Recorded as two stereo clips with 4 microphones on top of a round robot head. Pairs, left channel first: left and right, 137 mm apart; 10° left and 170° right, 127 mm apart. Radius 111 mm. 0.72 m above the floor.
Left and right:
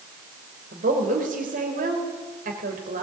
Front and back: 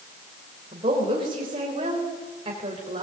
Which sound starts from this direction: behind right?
A woman speaking, at 0.7 s.